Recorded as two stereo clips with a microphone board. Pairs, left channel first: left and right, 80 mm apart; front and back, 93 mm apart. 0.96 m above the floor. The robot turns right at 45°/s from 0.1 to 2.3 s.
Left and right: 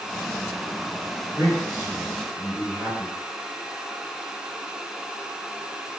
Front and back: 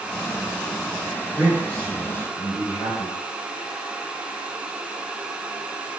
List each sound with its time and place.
1.4 s a man speaking: 95° right, 1.5 m; by 3.2 s 50° right, 1.5 m